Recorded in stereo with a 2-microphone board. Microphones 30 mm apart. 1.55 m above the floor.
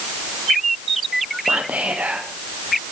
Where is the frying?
No frying in this recording.